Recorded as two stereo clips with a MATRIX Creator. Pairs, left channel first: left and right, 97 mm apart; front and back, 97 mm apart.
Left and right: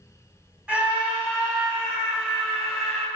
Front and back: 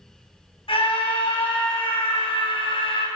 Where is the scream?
15° right, 4.5 m; by 3.1 s straight ahead, 3.5 m.